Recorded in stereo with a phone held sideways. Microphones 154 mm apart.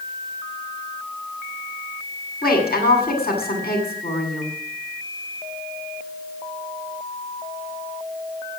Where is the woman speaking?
70° left (ahead or behind), 8 m.